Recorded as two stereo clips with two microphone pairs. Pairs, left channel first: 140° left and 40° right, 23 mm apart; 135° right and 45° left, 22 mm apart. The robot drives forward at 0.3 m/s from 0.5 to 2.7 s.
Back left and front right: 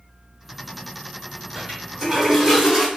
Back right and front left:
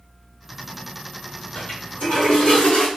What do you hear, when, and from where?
1.6 s a toilet flushing: 110° right, 1.9 m; by 2.9 s 120° right, 2.0 m